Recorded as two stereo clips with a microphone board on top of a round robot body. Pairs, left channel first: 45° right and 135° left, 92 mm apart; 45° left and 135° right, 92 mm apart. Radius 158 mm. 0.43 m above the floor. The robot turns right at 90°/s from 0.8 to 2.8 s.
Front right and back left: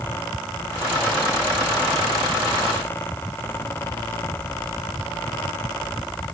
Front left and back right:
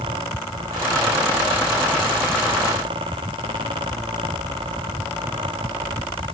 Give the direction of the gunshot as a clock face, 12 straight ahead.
I don't hear a gunshot.